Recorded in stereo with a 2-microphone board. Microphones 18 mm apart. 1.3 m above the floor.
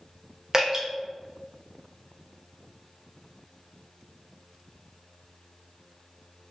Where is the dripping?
25° right (ahead or behind), 0.6 m.